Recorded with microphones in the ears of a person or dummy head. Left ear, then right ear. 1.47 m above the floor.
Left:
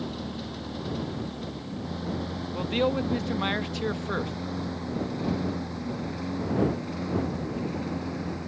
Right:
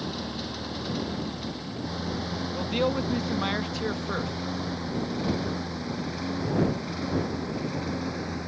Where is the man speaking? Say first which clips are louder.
Left 1 dB; 5° left (ahead or behind).